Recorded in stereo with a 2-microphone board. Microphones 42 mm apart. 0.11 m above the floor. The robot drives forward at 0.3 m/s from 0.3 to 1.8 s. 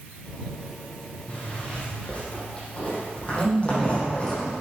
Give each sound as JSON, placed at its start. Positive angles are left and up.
{"t": 1.3, "sound": "a zipper", "side_deg": 25, "distance_m": 4.5}
{"t": 3.4, "sound": "a man speaking", "side_deg": 5, "distance_m": 4.0}